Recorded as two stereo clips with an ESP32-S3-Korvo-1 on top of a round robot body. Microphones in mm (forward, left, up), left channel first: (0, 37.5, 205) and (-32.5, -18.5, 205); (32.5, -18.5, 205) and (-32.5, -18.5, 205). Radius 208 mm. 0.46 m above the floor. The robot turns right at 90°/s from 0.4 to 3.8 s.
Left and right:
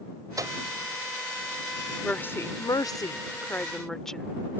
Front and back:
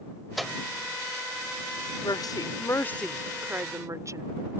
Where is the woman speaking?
20° right; by 4.3 s 145° left.